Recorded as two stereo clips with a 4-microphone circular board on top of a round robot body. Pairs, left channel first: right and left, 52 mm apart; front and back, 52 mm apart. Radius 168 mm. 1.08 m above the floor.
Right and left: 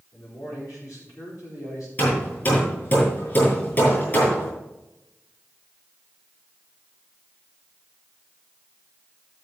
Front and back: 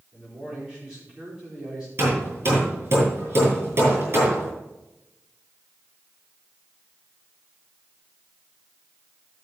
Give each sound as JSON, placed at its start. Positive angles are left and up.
{"t": 0.1, "sound": "a man speaking", "azimuth_deg": -105, "distance_m": 4.5}
{"t": 2.0, "sound": "hammering", "azimuth_deg": -140, "distance_m": 5.5}